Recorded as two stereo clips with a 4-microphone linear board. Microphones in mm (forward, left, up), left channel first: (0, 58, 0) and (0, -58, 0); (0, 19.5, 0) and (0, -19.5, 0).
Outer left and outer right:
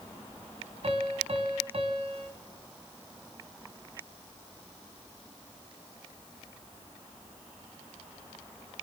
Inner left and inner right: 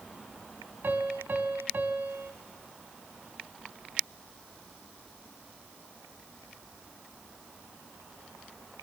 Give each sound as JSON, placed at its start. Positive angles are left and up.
{"t": 0.8, "sound": "a piano", "side_deg": -60, "distance_m": 2.5}